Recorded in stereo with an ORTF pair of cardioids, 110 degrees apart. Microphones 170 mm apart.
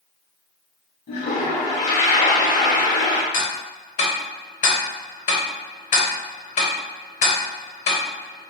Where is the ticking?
50° left, 1.2 m.